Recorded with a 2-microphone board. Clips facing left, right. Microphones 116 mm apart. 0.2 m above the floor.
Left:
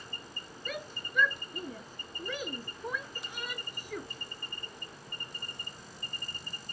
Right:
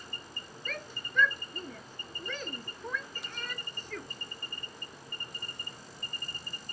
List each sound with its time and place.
0.7 s a shout: 10° left (ahead or behind)